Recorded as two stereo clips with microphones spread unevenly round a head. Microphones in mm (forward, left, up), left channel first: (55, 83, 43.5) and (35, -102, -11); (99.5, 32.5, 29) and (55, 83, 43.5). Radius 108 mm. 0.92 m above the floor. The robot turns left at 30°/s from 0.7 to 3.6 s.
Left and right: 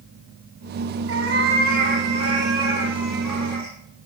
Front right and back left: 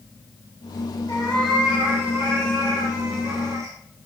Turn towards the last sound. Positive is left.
turn(degrees=150)